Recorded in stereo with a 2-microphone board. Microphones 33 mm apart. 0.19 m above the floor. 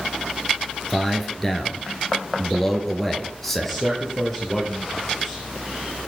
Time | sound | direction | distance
0.9 | a man speaking | 5° left (ahead or behind) | 3 m
3.6 | a man speaking | 5° left (ahead or behind) | 4 m